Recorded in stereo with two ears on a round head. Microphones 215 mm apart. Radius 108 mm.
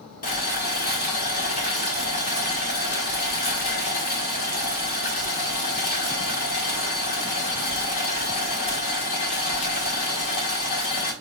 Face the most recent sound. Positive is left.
turn(degrees=40)  # may be behind; listen again after turning